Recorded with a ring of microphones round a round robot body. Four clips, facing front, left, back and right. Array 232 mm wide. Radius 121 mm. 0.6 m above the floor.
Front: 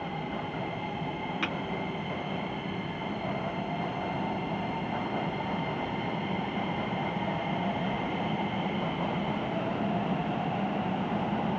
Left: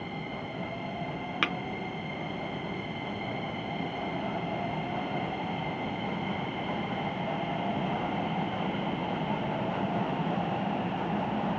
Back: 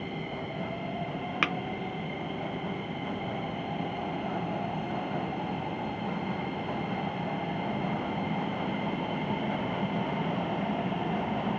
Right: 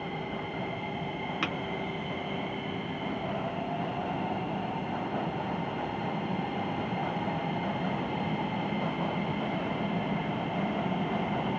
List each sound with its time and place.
1.4 s tapping: 145° left, 0.8 m